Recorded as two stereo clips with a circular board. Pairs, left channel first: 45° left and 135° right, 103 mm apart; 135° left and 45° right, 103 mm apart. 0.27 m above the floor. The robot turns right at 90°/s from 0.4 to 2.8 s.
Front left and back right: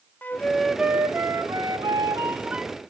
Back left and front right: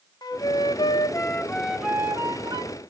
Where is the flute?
110° left, 0.5 m; by 2.7 s 45° right, 0.5 m.